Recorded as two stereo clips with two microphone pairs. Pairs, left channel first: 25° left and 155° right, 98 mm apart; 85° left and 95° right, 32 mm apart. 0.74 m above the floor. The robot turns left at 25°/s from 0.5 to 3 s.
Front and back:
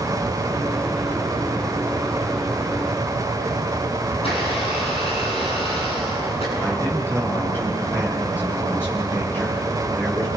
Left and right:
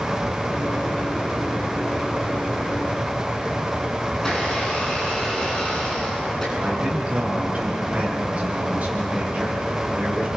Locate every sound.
4.1 s a blender: 15° left, 9 m
6.5 s a man speaking: 45° right, 9.5 m